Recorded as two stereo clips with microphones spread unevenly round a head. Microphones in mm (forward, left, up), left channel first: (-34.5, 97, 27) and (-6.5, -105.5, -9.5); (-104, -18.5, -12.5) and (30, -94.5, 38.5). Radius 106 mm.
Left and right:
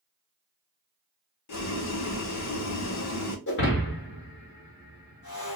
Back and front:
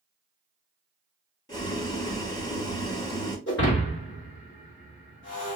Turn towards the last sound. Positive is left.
turn(degrees=110)